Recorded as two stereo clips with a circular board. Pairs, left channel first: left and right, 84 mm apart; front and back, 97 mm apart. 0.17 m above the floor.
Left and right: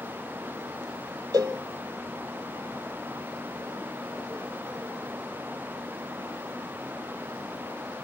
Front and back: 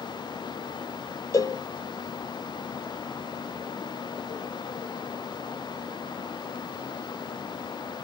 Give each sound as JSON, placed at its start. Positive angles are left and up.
{"t": 1.3, "sound": "a cowbell", "azimuth_deg": -50, "distance_m": 1.1}